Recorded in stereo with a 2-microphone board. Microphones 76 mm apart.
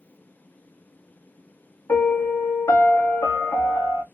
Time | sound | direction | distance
1.9 | a piano | 40° left (ahead or behind) | 0.7 m